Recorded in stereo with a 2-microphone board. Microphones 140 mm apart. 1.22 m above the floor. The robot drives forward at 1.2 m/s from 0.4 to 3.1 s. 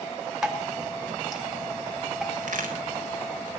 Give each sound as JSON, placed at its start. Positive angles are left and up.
{"t": 0.4, "sound": "dripping", "side_deg": -5, "distance_m": 1.4}
{"t": 2.4, "sound": "a crack", "side_deg": -65, "distance_m": 4.0}